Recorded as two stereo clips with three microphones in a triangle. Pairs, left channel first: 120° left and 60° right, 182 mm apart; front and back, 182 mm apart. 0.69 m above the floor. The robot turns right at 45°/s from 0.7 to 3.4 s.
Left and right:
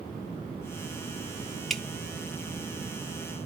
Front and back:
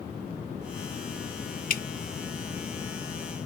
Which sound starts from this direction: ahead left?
Dripping, at 1.7 s.